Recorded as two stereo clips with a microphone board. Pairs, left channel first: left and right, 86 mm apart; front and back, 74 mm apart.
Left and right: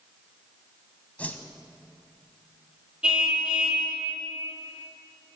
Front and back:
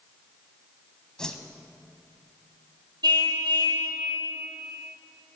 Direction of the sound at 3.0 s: 170° right.